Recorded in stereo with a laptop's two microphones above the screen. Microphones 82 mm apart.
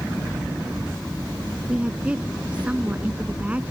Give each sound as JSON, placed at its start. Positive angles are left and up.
{"t": 1.7, "sound": "a woman speaking", "side_deg": -10}